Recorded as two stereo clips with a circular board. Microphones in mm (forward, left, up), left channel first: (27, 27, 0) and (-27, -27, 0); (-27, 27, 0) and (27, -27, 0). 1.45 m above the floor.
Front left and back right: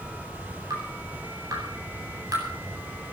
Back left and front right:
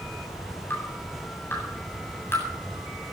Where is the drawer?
No drawer in this recording.